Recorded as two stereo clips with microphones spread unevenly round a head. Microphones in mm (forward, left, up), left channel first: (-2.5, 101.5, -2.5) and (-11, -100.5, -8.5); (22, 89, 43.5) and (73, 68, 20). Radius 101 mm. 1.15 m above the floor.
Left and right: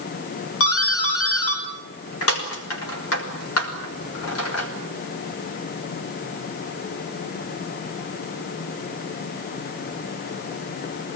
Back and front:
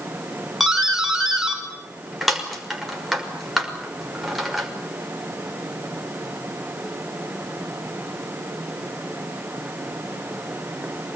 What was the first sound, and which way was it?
A doorbell, 65° left.